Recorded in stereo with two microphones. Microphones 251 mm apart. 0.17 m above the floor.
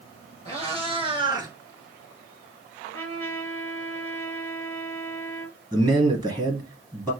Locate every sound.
0.5 s a cat meowing: 25° right (ahead or behind), 2 m; by 1.5 s 15° right (ahead or behind), 0.9 m
2.8 s a trumpet: 10° left (ahead or behind), 2.5 m
5.7 s a man speaking: 15° right (ahead or behind), 2 m